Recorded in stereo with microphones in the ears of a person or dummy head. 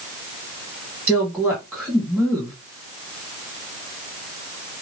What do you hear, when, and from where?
1.1 s a woman speaking: centre (ahead or behind), 1.7 m